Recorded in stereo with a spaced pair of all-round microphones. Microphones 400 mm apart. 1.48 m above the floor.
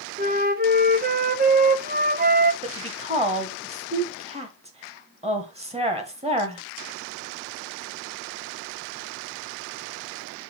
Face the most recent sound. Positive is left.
turn(degrees=-15)  # may be behind; listen again after turning